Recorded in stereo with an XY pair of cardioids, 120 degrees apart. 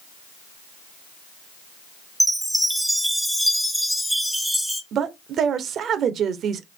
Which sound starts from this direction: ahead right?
A woman speaking, at 4.9 s.